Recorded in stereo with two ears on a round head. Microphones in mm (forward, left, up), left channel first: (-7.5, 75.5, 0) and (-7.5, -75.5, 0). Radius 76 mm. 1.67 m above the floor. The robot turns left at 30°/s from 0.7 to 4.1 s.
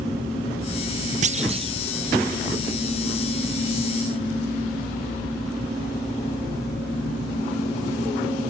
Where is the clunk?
50° right (ahead or behind); by 1.7 s 35° right (ahead or behind).